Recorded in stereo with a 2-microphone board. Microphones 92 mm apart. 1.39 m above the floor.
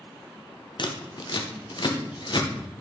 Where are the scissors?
55° left (ahead or behind), 0.9 m.